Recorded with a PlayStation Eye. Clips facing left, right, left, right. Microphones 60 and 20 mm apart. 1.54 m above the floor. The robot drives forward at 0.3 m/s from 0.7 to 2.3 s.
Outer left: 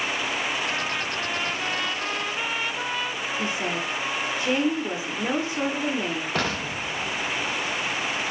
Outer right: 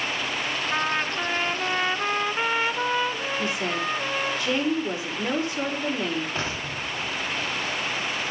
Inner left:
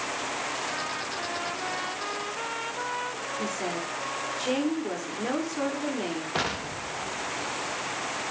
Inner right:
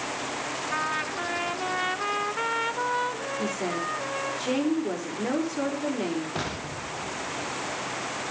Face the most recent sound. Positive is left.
turn(degrees=60)  # may be behind; listen again after turning